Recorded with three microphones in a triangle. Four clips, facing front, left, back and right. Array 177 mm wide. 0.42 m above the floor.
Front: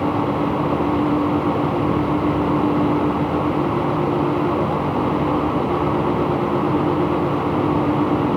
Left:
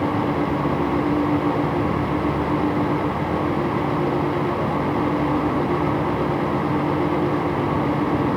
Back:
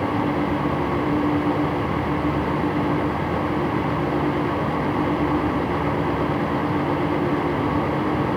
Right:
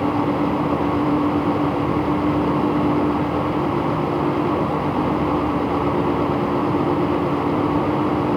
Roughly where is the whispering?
No whispering in this recording.